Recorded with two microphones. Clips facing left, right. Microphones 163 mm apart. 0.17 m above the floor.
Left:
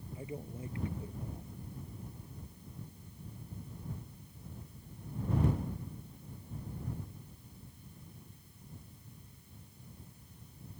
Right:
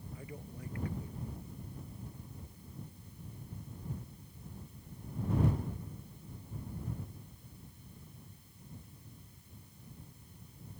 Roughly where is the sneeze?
No sneeze in this recording.